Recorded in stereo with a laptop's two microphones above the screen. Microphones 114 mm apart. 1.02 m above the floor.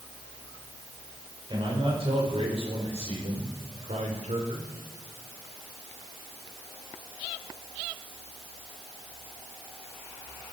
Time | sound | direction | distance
1.5 | a man speaking | 50° right (ahead or behind) | 4.5 m